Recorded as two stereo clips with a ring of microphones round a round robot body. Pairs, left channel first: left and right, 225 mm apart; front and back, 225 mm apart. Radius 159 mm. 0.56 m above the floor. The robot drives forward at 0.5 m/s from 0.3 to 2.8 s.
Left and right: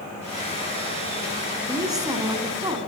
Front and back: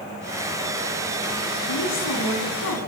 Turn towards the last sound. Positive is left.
turn(degrees=-15)